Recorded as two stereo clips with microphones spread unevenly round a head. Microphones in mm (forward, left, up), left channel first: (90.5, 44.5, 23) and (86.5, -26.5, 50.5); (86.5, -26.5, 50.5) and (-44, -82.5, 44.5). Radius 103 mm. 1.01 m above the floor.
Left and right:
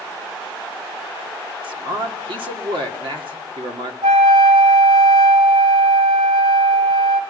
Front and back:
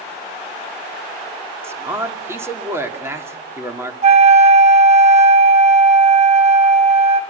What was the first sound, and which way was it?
A man speaking, 85° right.